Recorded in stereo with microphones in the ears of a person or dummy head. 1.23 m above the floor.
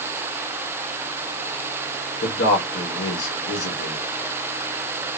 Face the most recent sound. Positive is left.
turn(degrees=90)